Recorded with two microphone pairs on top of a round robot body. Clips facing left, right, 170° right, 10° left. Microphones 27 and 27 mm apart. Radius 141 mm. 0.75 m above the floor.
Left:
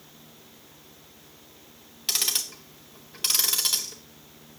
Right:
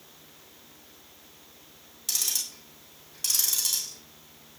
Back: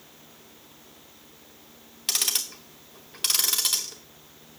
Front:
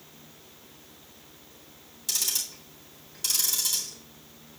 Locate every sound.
2.1 s ticking: 150° left, 0.6 m